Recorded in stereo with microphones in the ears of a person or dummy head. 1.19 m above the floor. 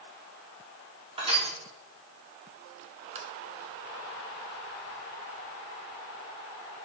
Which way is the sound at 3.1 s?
35° right (ahead or behind).